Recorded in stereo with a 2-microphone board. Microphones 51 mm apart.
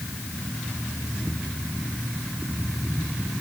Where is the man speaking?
No man speaking in this recording.